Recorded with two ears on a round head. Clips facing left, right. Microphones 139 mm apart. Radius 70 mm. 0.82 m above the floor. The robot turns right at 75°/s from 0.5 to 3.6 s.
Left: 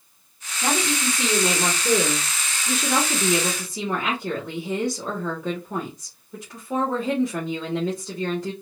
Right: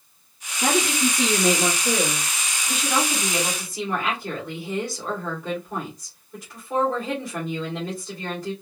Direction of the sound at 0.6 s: 65° right.